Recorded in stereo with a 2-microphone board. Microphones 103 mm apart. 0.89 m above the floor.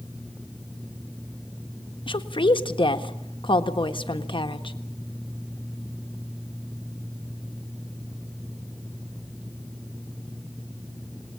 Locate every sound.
2.1 s a woman speaking: 55° left (ahead or behind), 1.4 m